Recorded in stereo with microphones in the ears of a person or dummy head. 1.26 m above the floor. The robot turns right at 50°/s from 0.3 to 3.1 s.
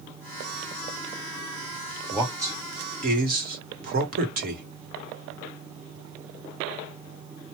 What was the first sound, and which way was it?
A man speaking, centre (ahead or behind).